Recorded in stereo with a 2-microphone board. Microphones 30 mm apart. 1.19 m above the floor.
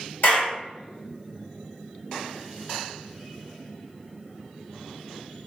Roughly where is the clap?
Left.